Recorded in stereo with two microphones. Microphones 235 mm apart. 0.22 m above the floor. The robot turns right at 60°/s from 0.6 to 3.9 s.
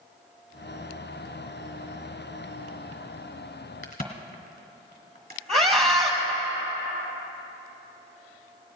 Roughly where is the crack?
Left.